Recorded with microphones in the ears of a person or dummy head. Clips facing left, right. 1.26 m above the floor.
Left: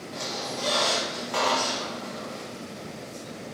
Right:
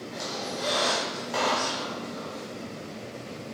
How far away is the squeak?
About 0.7 m.